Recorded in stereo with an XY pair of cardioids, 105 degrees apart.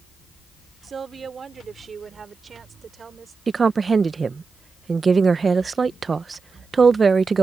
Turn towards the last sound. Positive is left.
turn(degrees=-35)